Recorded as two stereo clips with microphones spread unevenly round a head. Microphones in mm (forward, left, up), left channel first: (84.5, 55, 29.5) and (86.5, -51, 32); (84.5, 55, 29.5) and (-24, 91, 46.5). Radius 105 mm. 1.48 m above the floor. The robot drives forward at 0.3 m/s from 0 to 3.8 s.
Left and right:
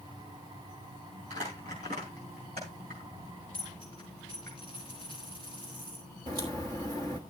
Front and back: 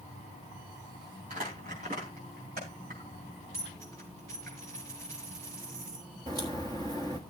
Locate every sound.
1.3 s crumpling: 145° right, 4 m; by 4.5 s 150° right, 5 m
3.5 s a dropped coin: 160° right, 4.5 m
6.3 s a crack: 145° right, 1.1 m